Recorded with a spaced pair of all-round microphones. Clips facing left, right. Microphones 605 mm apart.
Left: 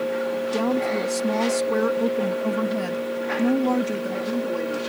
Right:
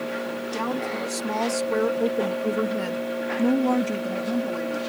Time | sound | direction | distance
0.5 | a woman speaking | 65° left (ahead or behind) | ?